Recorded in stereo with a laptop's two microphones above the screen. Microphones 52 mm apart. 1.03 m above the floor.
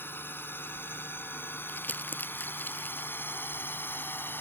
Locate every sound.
0.0 s a drone: 45° left (ahead or behind)
1.7 s crumpling: 40° left (ahead or behind)